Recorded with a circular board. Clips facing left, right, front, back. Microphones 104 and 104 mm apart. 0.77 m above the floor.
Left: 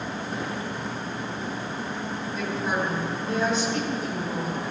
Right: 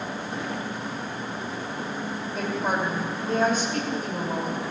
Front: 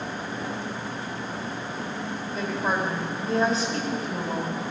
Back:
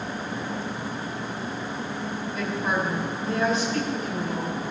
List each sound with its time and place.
2.3 s a woman speaking: 50° right, 3.5 m